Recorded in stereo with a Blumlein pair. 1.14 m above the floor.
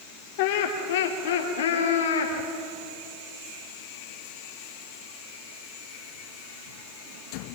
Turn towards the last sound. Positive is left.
turn(degrees=65)